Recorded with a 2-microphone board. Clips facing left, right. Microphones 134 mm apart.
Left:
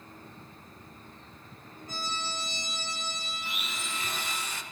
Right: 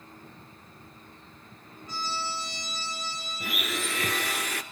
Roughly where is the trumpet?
Left.